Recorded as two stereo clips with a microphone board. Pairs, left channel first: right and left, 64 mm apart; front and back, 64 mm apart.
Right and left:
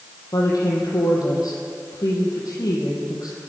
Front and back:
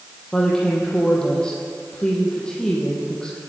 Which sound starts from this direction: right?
A woman speaking, at 0.3 s.